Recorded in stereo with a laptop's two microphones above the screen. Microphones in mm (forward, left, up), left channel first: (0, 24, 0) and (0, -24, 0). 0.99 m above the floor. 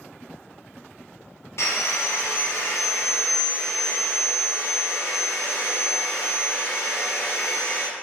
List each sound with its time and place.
1.6 s sawing: 65° left (ahead or behind), 0.6 m